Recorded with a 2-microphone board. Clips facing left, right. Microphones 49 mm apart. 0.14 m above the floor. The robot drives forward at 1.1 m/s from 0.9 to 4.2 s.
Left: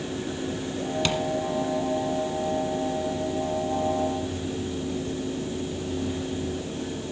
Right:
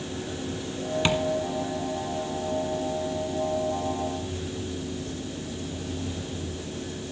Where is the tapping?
20° right (ahead or behind), 1.2 m; by 1.2 s 25° right (ahead or behind), 1.1 m.